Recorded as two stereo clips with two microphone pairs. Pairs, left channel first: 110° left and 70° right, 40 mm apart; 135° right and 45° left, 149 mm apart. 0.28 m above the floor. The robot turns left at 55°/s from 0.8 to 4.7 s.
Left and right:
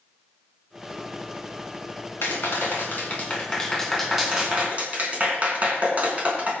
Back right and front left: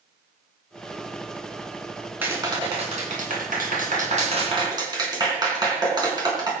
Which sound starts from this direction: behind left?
A clap, at 2.2 s.